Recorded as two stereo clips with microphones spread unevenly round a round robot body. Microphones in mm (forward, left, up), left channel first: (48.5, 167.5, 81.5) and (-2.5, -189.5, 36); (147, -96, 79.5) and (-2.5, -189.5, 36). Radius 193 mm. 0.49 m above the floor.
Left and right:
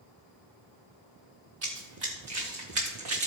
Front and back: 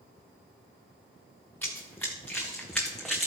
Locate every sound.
1.6 s running footsteps: 45° right, 4.5 m; by 3.3 s 55° right, 3 m